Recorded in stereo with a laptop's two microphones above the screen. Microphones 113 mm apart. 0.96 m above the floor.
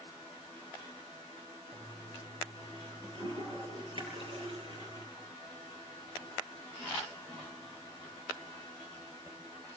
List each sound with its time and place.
1.7 s a toilet flushing: 50° right (ahead or behind), 8 m